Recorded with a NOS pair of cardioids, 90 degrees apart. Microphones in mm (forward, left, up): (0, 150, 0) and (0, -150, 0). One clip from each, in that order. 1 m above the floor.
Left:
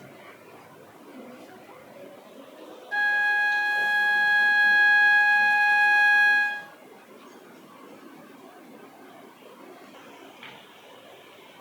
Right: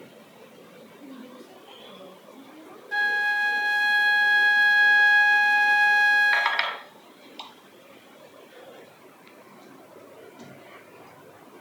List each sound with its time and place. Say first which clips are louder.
1.0 s a woman speaking: left 1 dB; 45° right, 6 m; by 2.8 s 40° right, 6.5 m
2.9 s a flute: left 1 dB; 15° right, 0.9 m